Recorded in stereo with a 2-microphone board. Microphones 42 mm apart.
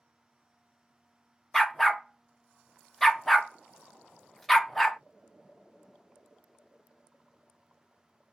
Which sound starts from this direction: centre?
A dog barking, at 1.5 s.